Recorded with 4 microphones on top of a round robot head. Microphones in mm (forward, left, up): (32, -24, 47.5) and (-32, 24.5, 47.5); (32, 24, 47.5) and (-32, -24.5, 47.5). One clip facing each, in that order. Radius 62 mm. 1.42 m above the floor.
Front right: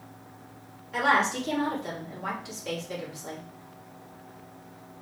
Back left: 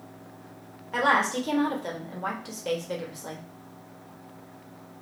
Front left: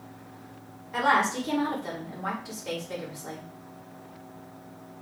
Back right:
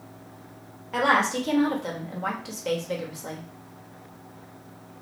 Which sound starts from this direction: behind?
A woman speaking, at 0.9 s.